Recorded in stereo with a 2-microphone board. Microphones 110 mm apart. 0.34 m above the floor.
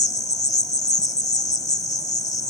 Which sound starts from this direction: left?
An insect, at 0.0 s.